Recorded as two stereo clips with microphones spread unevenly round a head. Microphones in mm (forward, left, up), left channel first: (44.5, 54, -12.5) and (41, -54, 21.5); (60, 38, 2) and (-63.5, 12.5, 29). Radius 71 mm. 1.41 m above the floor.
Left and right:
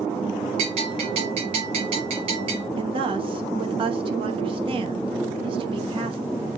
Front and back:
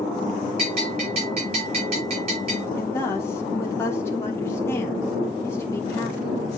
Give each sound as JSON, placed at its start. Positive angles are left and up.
{"t": 0.6, "sound": "a bell", "azimuth_deg": -125, "distance_m": 5.0}
{"t": 2.8, "sound": "a woman speaking", "azimuth_deg": -65, "distance_m": 1.5}